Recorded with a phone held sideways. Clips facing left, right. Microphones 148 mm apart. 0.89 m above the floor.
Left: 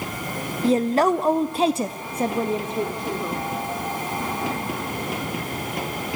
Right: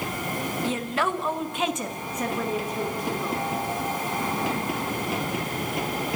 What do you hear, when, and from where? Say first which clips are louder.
0.6 s a woman speaking: left 11 dB; 35° left (ahead or behind), 0.8 m; by 3.5 s 25° left (ahead or behind), 3 m